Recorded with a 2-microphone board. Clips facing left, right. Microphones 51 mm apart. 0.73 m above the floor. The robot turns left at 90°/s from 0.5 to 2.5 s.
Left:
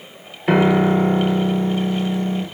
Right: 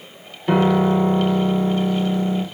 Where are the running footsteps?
No running footsteps in this recording.